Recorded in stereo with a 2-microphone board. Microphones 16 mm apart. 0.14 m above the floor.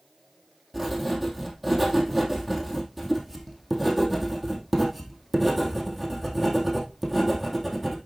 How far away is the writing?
About 3 m.